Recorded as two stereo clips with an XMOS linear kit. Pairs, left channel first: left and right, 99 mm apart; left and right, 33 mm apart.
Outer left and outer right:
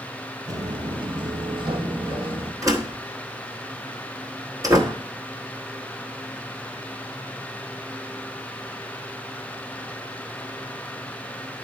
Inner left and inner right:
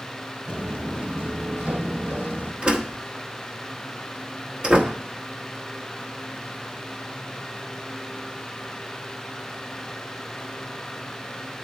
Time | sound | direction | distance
0.5 | footsteps | 35° right (ahead or behind) | 1.0 m
2.6 | a door slam | 35° right (ahead or behind) | 1.0 m